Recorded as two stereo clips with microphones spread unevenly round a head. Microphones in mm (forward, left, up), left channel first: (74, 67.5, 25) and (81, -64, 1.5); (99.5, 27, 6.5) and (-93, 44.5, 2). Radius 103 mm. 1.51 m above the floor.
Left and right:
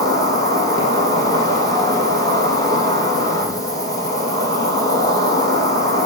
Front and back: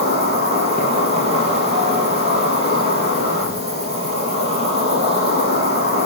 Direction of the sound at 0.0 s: 120° right.